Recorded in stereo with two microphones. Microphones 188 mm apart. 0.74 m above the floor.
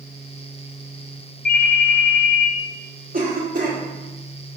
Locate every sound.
1.4 s a ringtone: 50° left (ahead or behind), 0.9 m
3.1 s a cough: 50° right (ahead or behind), 1.2 m